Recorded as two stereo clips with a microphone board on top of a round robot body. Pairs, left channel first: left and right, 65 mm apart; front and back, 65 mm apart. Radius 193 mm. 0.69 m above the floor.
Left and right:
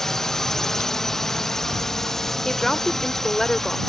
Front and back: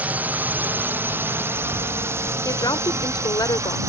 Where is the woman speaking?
5° left.